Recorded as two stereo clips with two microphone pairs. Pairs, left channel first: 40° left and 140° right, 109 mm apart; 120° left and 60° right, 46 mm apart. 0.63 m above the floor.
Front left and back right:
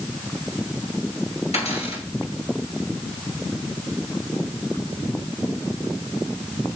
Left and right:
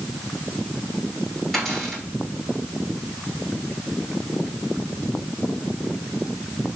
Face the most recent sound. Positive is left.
turn(degrees=35)